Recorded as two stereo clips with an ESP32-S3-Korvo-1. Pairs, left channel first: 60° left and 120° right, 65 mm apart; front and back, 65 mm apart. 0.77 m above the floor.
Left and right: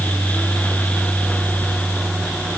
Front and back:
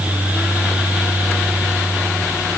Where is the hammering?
No hammering in this recording.